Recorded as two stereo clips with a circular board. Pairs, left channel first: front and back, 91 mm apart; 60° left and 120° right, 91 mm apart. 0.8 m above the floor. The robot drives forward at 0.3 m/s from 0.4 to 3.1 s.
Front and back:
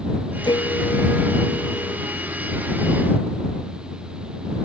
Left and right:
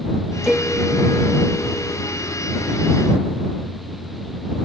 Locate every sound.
0.4 s a piano: 35° right